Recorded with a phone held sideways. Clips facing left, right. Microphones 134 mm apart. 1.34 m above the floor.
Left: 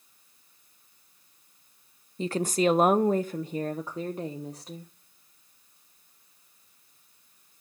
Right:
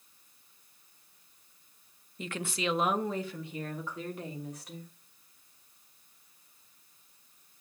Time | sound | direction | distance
2.2 | a woman speaking | 35° left (ahead or behind) | 0.5 m